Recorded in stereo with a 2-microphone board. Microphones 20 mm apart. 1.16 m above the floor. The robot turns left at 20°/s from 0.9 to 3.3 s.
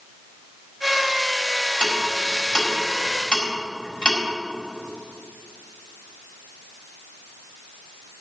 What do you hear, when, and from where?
1.8 s ticking: 85° left, 6 m; by 4.2 s 55° left (ahead or behind), 6 m